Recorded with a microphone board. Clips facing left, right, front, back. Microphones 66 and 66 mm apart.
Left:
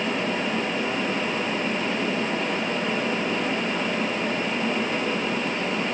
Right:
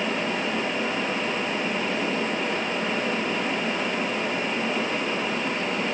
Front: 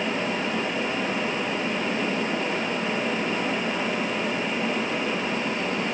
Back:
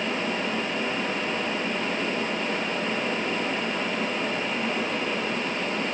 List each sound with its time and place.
Only background noise.